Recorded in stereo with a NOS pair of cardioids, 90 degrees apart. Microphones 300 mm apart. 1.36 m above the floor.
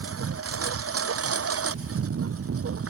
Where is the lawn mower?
50° right.